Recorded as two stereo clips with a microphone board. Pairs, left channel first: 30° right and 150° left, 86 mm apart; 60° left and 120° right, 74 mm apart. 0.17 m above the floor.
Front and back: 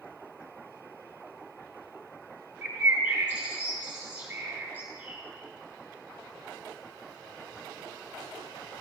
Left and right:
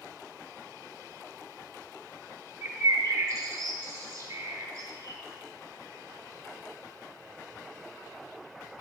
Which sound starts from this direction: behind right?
A bird, at 2.6 s.